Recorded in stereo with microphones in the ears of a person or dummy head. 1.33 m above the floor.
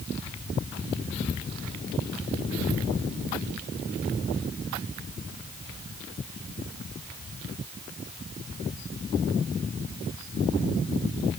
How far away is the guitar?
I don't hear a guitar.